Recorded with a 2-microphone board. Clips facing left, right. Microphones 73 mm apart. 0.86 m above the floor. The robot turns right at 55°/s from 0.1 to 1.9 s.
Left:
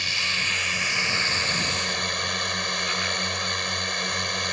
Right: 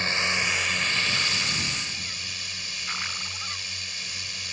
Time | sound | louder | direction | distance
0.0 | a drone | right 2 dB | 35° right | ?